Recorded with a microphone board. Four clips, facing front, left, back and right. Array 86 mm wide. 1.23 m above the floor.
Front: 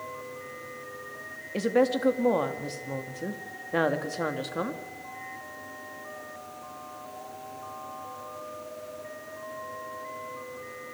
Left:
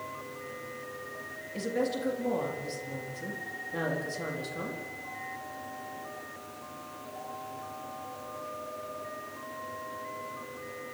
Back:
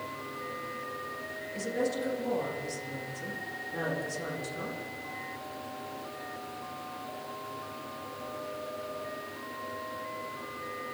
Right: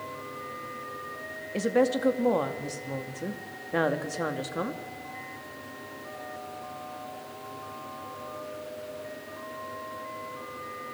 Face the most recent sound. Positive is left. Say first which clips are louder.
# right 6 dB, front 8 dB
turn(degrees=-40)